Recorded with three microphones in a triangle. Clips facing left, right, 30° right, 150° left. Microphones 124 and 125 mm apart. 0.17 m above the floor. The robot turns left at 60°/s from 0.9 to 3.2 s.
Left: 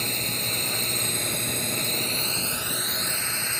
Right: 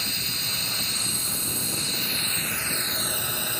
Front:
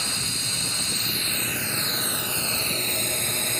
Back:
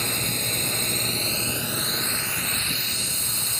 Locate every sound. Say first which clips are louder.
0.0 s a drone: left 4 dB, back 4 dB; 120° left; by 3.6 s 15° right